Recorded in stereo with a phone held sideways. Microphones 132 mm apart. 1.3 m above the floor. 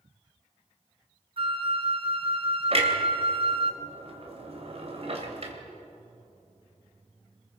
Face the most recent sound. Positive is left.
turn(degrees=-50)  # may be behind; listen again after turning